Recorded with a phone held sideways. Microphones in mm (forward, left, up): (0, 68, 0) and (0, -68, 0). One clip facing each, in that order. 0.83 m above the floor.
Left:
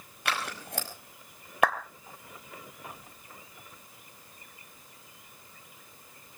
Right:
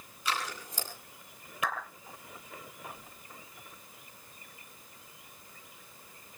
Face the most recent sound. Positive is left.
turn(degrees=65)  # may be behind; listen again after turning